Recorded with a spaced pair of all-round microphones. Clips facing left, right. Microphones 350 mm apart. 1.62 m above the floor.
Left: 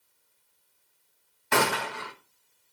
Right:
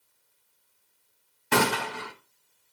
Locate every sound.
1.5 s a gunshot: 45° right (ahead or behind), 1.1 m